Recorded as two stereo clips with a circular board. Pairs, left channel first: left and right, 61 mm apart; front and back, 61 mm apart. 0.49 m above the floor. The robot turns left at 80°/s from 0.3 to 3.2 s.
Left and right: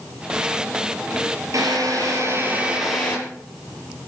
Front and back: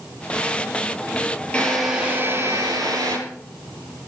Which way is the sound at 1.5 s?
70° right.